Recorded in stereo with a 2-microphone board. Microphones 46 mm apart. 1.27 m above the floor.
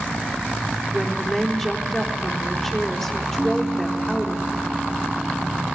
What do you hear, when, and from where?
0.9 s a woman speaking: 5° left (ahead or behind), 4 m
3.4 s a piano: 10° right (ahead or behind), 1.7 m